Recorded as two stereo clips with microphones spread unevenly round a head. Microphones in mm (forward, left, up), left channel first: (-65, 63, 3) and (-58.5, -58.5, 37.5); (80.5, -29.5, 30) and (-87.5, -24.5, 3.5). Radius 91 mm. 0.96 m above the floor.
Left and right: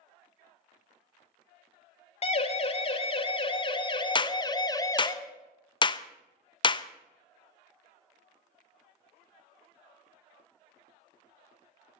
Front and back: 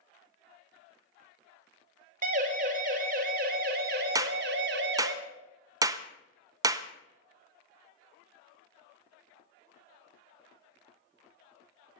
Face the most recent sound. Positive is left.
turn(degrees=115)